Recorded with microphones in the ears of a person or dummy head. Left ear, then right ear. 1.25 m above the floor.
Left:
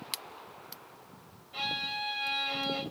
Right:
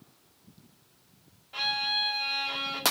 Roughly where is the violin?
Right.